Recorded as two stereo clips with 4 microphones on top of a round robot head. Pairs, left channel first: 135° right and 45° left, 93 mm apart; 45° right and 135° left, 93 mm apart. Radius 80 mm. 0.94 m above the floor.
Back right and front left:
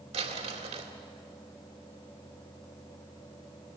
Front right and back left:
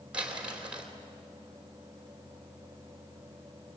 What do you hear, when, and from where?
0.1 s crumpling: 55° left, 2.5 m